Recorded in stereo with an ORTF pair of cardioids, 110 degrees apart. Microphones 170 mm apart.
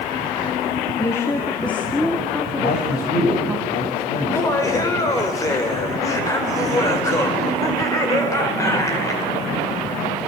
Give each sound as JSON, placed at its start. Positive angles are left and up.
{"t": 1.0, "sound": "a woman speaking", "azimuth_deg": 20, "distance_m": 2.0}
{"t": 2.6, "sound": "a man speaking", "azimuth_deg": 55, "distance_m": 7.0}
{"t": 4.2, "sound": "laughter", "azimuth_deg": 20, "distance_m": 4.0}